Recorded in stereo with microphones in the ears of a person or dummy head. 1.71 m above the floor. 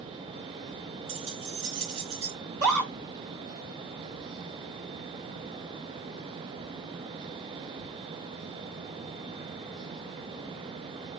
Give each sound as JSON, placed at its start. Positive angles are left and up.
{"t": 1.1, "sound": "keys jangling", "side_deg": -35, "distance_m": 3.0}
{"t": 2.4, "sound": "a scream", "side_deg": -50, "distance_m": 3.5}